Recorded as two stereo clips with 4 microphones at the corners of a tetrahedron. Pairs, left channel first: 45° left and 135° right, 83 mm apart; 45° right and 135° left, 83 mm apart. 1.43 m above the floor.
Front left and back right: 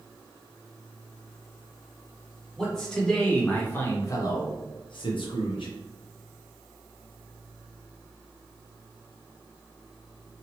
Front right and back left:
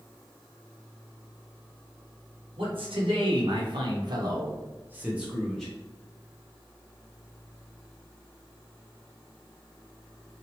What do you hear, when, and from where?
2.6 s a man speaking: 130° left, 1.4 m; by 5.7 s 40° left, 0.9 m